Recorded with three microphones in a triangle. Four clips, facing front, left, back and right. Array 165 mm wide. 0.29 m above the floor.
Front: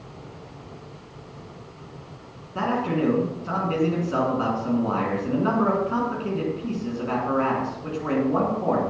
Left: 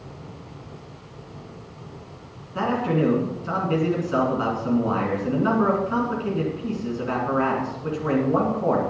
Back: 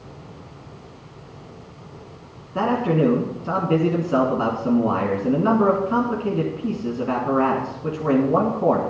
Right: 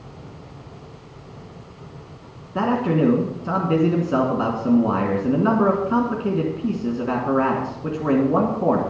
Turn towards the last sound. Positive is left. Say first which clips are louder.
# right 3 dB, back 4 dB
turn(degrees=-120)